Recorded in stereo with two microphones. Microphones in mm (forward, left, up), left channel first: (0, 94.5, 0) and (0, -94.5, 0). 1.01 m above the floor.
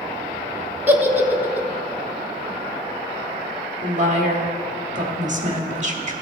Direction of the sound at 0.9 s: 10° right (ahead or behind).